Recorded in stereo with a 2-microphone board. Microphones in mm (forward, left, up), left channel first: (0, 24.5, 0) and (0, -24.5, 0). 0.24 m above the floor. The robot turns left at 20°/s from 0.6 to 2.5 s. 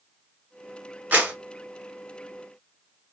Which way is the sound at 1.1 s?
40° right (ahead or behind).